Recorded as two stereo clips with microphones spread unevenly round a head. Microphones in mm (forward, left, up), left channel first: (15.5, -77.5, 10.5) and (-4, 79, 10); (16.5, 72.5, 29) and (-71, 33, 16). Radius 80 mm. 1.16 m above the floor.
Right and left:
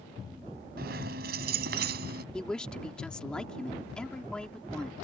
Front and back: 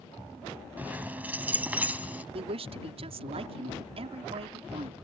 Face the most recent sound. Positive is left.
turn(degrees=-170)